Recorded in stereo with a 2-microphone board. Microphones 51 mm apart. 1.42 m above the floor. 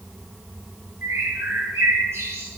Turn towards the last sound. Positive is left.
turn(degrees=-50)  # may be behind; listen again after turning